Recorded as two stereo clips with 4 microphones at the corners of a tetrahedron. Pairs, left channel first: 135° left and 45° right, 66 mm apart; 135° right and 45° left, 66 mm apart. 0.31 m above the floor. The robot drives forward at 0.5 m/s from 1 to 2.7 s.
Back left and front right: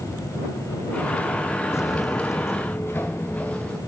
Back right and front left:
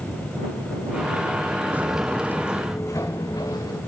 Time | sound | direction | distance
1.7 | footsteps | 100° left | 0.5 m